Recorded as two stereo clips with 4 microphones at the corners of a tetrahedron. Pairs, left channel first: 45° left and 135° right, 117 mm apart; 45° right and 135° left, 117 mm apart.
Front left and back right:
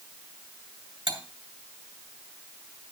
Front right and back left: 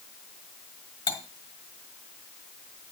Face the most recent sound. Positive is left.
turn(degrees=-90)